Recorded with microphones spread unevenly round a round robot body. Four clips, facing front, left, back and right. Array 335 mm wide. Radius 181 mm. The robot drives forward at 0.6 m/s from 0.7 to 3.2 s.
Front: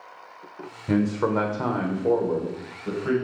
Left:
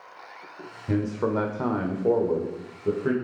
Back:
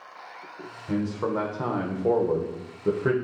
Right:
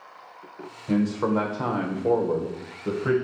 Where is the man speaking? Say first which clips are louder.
Right 2 dB, front 4 dB; 20° left, 1.2 m; by 3.1 s 170° left, 1.4 m.